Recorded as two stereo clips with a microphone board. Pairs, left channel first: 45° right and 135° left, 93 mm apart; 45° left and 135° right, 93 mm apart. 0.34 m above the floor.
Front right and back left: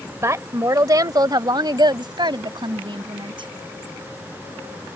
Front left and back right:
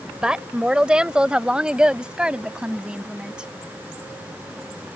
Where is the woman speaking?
150° left; by 3.5 s 145° left.